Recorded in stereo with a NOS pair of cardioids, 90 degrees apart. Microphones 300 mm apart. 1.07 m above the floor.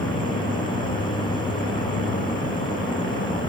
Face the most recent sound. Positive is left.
turn(degrees=15)